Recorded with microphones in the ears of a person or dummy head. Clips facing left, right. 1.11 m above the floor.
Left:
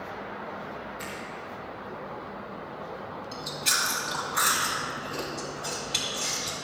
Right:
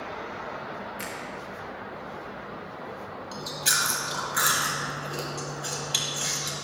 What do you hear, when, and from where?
1.0 s a finger snap: 30° right (ahead or behind), 1.5 m
3.3 s chewing: 15° right (ahead or behind), 2 m